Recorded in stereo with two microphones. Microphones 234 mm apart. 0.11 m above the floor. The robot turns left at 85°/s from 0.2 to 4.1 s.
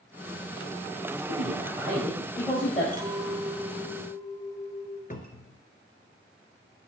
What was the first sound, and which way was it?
A man speaking, 85° right.